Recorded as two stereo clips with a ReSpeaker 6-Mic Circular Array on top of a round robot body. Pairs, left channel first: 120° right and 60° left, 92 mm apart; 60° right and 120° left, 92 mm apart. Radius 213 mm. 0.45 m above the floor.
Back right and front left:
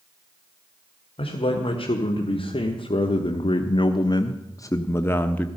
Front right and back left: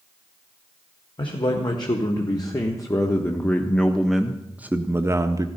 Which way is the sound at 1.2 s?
95° right.